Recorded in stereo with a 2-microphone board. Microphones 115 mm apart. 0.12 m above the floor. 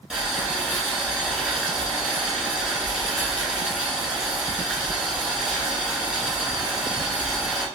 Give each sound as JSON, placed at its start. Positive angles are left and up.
{"t": 0.1, "sound": "boiling", "side_deg": -5, "distance_m": 1.6}